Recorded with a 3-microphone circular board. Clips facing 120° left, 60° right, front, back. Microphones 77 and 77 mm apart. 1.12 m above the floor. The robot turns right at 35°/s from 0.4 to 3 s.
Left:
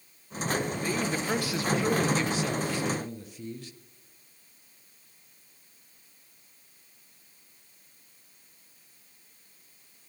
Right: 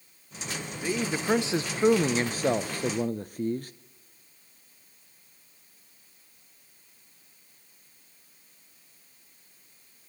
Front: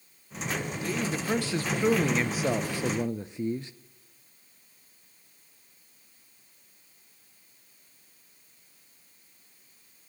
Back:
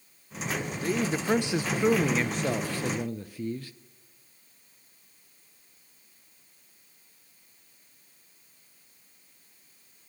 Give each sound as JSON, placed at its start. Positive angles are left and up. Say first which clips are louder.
{"t": 0.8, "sound": "a man speaking", "louder": "right 1 dB, back 5 dB", "azimuth_deg": -140, "distance_m": 0.6}